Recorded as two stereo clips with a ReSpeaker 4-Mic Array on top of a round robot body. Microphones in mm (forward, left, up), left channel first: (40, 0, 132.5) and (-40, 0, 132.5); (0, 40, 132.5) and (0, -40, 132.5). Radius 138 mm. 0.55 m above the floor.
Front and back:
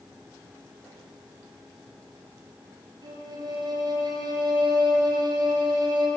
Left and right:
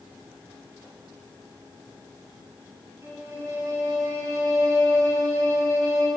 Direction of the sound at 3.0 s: 145° right.